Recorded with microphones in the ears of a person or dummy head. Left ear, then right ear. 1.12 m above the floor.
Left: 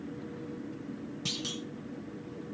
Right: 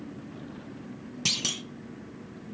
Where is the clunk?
40° right (ahead or behind), 0.6 m.